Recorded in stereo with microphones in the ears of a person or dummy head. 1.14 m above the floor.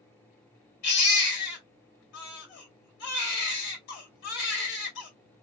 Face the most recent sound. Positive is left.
turn(degrees=60)  # may be behind; listen again after turning